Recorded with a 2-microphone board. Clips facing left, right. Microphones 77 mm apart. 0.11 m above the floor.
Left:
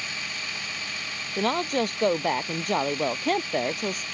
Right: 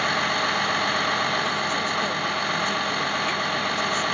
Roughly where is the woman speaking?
Left.